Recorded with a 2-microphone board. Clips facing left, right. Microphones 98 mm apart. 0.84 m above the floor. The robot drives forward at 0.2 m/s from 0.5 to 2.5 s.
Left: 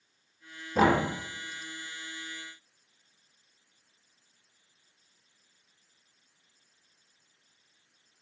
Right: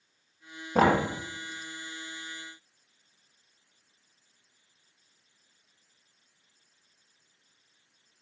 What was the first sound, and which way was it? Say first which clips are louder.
Knocking: right 1 dB; 50° right (ahead or behind).